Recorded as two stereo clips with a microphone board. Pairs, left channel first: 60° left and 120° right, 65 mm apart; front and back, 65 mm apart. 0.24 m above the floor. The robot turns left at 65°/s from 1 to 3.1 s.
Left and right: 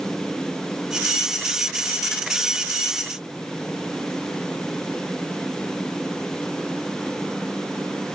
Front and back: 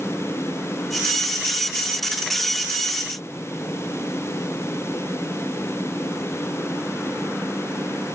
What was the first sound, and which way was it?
Only background noise.